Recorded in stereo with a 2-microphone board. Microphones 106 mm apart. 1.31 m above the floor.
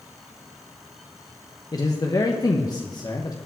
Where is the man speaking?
40° left (ahead or behind), 1.0 m.